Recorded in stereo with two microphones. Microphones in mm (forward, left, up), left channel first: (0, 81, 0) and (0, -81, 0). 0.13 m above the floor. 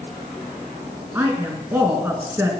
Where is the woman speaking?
15° right (ahead or behind), 1.7 m.